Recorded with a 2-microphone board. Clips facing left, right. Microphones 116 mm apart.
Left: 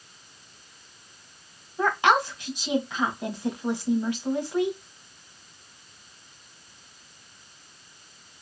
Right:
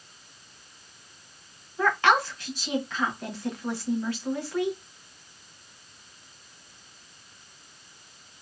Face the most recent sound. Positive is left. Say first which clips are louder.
# left 1 dB
turn(degrees=20)  # may be behind; listen again after turning